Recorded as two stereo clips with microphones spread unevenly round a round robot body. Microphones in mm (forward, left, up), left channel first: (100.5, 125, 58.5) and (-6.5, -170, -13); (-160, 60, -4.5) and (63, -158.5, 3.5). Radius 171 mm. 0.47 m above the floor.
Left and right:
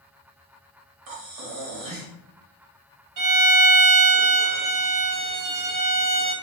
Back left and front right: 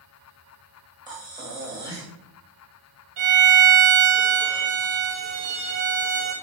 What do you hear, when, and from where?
1.1 s breathing: 120° right, 1.2 m
3.2 s a violin: 100° right, 1.5 m